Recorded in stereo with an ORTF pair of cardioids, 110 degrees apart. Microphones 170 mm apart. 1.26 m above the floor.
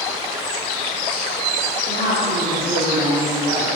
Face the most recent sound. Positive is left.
turn(degrees=-55)